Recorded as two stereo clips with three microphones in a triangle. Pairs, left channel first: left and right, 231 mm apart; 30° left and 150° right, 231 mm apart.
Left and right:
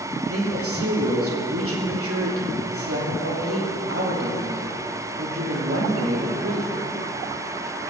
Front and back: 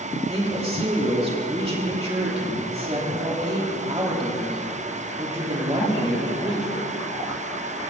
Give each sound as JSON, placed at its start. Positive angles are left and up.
{"t": 0.3, "sound": "a woman speaking", "azimuth_deg": -85, "distance_m": 2.5}